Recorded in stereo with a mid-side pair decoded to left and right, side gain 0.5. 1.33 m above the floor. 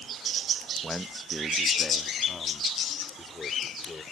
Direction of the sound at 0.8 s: 10° right.